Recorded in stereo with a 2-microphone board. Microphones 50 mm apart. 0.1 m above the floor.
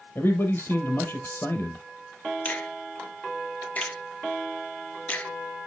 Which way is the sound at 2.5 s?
30° left (ahead or behind).